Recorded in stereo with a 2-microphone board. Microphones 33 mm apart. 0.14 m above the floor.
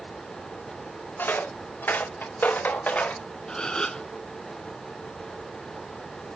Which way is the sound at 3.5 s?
25° left (ahead or behind).